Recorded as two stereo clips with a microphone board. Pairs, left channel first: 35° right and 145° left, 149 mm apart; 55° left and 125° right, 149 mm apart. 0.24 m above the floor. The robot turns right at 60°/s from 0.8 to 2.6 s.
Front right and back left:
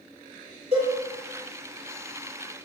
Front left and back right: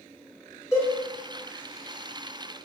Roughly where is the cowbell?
Behind left.